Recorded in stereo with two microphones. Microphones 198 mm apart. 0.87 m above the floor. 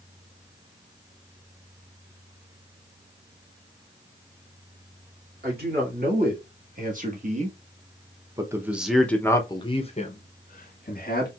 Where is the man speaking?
55° right (ahead or behind), 2 m; by 11.3 s 55° left (ahead or behind), 1.4 m.